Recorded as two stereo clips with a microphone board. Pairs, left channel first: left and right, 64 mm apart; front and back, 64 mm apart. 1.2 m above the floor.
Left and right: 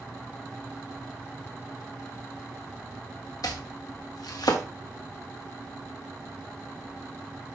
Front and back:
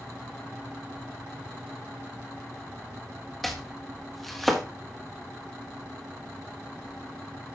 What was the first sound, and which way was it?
Chopping, 90° left.